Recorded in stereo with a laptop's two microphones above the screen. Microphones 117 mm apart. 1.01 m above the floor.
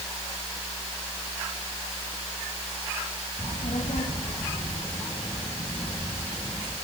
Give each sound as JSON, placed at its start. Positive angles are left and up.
{"t": 3.4, "sound": "a child speaking", "side_deg": 85, "distance_m": 3.5}